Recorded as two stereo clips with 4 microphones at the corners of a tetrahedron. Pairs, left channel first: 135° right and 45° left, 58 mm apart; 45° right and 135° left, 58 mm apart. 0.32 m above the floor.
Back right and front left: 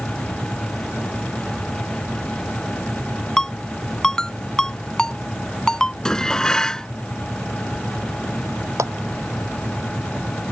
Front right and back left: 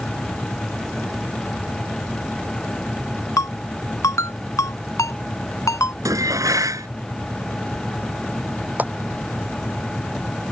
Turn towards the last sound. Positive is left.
turn(degrees=75)